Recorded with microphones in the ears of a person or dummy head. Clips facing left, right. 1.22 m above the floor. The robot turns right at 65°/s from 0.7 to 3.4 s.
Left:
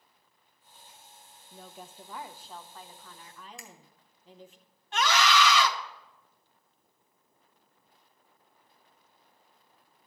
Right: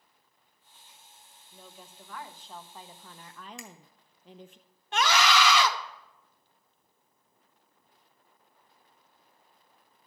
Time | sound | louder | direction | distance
1.5 | a woman speaking | left 4 dB | 110° left | 0.8 m
3.6 | a finger snap | right 5 dB | 65° right (ahead or behind) | 2.0 m
4.9 | a scream | even | 55° right (ahead or behind) | 1.1 m